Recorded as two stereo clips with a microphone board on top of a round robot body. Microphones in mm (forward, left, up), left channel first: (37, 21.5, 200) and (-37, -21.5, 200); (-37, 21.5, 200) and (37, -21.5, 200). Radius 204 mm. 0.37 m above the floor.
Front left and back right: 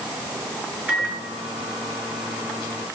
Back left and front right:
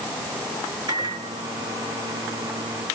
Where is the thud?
No thud in this recording.